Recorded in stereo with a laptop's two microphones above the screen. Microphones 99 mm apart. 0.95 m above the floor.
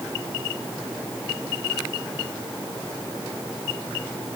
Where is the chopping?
I don't hear chopping.